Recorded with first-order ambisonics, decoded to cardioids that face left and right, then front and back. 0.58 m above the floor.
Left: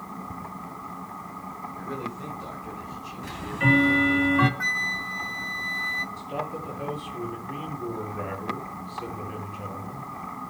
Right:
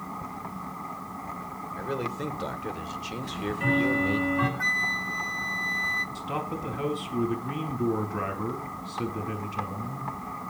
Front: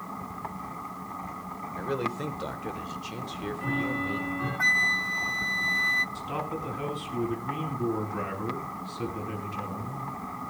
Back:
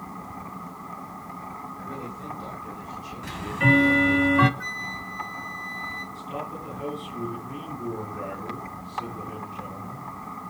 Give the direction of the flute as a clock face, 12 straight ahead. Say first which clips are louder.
Even, front 9 dB; 12 o'clock.